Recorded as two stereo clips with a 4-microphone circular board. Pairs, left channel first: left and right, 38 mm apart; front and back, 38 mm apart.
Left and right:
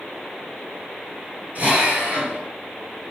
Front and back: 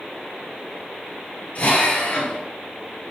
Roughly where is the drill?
Ahead right.